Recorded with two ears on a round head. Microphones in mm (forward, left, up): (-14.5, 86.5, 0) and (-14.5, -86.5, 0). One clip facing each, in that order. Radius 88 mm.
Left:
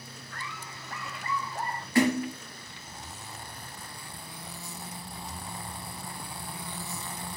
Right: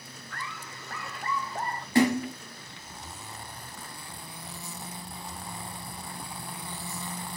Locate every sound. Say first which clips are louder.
0.3 s laughter: right 2 dB; 55° right (ahead or behind), 2.5 m; by 1.9 s 30° right (ahead or behind), 2 m
1.9 s a splash: right 1 dB; 25° right (ahead or behind), 3 m